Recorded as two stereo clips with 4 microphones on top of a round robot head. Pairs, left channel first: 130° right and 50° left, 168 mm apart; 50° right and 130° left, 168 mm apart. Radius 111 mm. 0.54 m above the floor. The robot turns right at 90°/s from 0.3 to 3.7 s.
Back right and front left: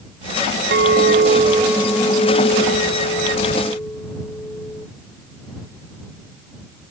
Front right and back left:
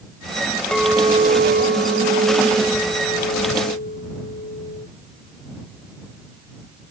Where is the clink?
35° left; by 4.9 s 55° right.